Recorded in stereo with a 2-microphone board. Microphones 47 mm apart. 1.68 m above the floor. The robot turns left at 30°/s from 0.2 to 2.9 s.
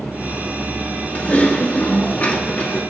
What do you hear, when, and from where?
1.1 s typing on a keyboard: 100° left, 1.2 m; by 2.8 s 50° left, 1.2 m